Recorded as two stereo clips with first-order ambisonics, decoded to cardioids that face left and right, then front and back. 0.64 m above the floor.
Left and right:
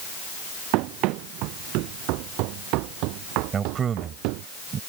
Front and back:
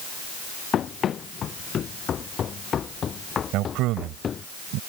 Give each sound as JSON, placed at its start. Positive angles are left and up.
{"t": 0.7, "sound": "running footsteps", "azimuth_deg": -60}
{"t": 3.5, "sound": "a man speaking", "azimuth_deg": -150}